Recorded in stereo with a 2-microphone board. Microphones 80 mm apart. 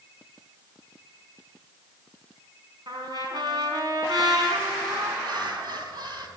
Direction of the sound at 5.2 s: 65° right (ahead or behind).